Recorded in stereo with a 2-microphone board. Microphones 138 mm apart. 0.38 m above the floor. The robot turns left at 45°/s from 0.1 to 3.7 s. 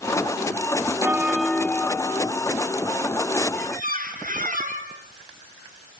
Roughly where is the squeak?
Right.